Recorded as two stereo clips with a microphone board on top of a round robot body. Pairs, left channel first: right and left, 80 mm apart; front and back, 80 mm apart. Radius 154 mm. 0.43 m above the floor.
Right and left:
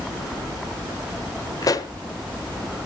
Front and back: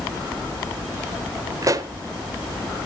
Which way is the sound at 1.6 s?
135° right.